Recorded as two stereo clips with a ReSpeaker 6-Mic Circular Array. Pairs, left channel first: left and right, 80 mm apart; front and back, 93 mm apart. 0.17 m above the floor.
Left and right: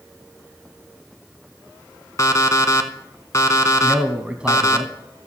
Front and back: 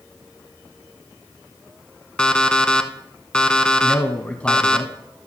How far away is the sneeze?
No sneeze in this recording.